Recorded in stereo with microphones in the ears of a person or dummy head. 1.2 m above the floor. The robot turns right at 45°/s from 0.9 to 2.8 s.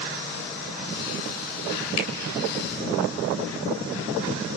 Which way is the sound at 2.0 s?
75° left (ahead or behind).